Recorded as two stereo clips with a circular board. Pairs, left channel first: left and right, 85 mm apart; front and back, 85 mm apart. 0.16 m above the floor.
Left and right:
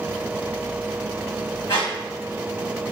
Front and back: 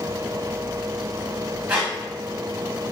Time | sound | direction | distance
1.7 | a squeak | 110° left | 1.9 m